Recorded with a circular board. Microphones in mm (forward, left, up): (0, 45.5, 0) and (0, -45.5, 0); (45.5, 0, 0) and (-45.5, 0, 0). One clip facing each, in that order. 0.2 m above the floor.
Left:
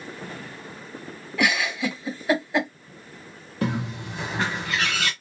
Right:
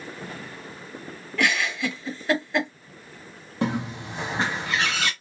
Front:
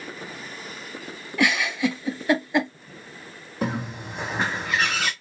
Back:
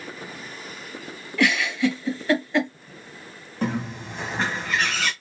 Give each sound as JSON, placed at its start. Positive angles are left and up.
{"t": 1.4, "sound": "a giggle", "azimuth_deg": 30, "distance_m": 1.2}
{"t": 3.6, "sound": "a bird", "azimuth_deg": -75, "distance_m": 1.0}